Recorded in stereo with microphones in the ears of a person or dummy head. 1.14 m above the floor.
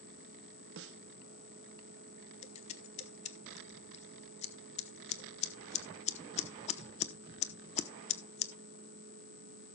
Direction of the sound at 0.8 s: 75° right (ahead or behind).